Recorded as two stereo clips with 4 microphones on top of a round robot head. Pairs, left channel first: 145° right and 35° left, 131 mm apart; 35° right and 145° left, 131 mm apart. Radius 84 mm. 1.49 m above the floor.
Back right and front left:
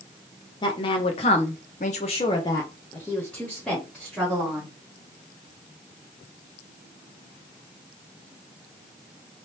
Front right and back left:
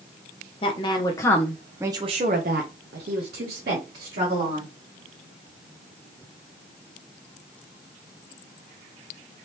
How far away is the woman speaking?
About 0.8 m.